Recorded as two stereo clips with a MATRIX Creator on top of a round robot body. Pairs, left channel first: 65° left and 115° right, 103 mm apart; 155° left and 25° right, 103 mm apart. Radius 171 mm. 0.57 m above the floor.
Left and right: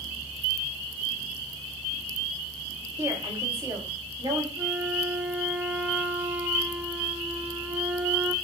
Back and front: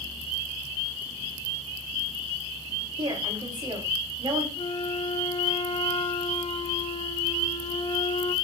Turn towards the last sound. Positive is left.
turn(degrees=175)